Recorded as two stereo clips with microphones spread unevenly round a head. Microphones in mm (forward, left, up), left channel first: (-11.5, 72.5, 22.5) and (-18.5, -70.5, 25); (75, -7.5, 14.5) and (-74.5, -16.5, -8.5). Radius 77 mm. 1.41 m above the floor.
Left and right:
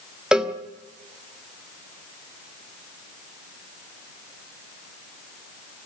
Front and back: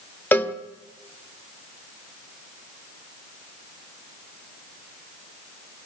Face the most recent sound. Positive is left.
turn(degrees=-20)